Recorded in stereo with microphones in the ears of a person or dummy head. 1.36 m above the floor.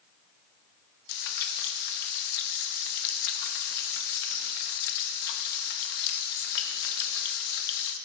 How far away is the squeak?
I don't hear a squeak.